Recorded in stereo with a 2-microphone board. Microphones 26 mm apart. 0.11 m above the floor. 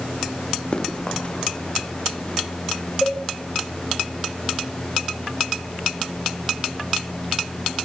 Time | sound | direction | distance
0.7 | running footsteps | 35° left (ahead or behind) | 4.5 m
3.0 | a cowbell | 30° left (ahead or behind) | 6 m